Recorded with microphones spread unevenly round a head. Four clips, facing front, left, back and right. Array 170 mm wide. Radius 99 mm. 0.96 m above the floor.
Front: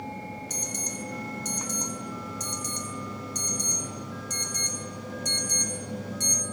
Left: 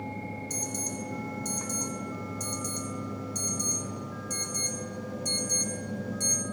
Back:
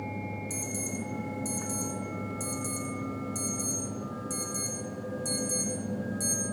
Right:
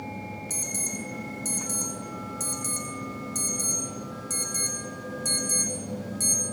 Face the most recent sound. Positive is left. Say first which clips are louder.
# left 1 dB, back 1 dB
turn(degrees=-5)